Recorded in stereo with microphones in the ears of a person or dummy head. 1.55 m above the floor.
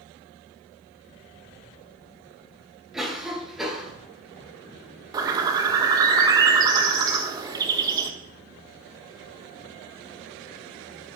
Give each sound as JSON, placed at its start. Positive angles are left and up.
{"t": 2.9, "sound": "a cough", "side_deg": -5, "distance_m": 2.5}
{"t": 5.1, "sound": "a bird", "side_deg": -25, "distance_m": 1.3}